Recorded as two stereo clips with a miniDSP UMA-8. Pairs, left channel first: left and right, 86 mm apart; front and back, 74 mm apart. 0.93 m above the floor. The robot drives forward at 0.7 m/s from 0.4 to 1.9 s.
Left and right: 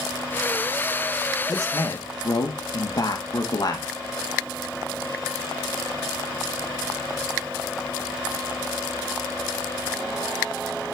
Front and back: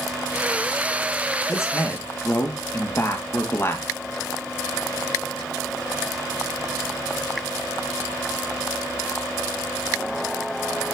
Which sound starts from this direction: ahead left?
A man speaking, at 1.5 s.